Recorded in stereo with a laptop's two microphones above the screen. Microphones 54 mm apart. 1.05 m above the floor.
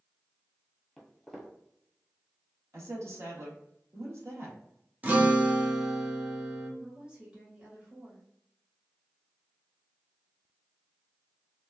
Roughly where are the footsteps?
Centre.